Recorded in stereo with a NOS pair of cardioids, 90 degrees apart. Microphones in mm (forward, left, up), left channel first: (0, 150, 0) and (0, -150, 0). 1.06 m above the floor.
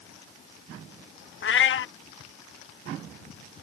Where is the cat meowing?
45° left.